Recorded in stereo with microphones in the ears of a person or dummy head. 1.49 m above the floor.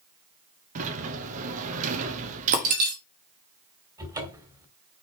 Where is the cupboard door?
20° right (ahead or behind), 1.7 m.